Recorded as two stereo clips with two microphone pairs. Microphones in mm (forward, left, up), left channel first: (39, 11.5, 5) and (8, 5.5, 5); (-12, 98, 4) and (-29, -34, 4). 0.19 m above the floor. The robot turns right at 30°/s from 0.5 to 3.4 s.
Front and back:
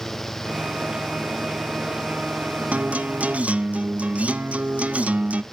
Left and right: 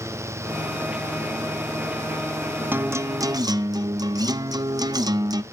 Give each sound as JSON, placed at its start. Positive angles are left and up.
{"t": 2.7, "sound": "a guitar", "azimuth_deg": -170, "distance_m": 0.5}